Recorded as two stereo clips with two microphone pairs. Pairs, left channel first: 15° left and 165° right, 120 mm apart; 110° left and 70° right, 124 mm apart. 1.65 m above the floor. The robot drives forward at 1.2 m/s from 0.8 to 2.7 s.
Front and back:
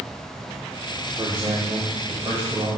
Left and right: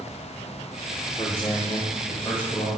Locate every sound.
1.2 s a man speaking: 150° left, 1.1 m; by 2.7 s 170° left, 3 m